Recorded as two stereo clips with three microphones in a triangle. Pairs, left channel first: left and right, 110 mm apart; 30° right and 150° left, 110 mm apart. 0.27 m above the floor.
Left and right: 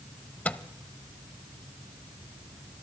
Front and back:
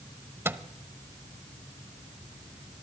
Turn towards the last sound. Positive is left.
turn(degrees=145)